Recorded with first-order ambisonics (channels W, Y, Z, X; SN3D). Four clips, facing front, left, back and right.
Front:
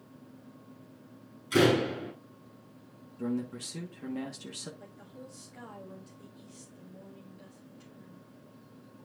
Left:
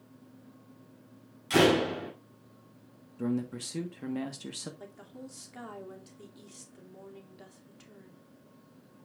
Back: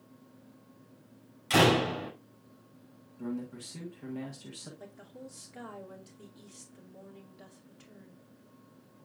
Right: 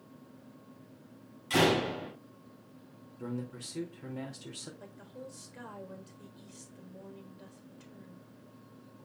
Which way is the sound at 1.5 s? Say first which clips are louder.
Left 3 dB, back 1 dB; 160° left.